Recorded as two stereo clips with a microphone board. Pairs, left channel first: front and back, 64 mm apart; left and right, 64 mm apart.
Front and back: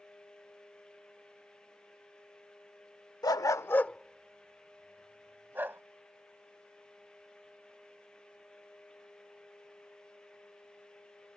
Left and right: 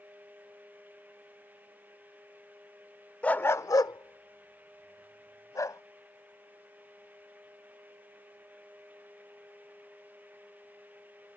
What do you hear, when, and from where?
3.2 s a dog barking: 20° left; by 5.8 s 125° left